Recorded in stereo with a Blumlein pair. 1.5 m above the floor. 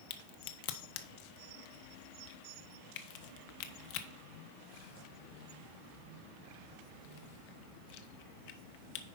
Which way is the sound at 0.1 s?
50° left.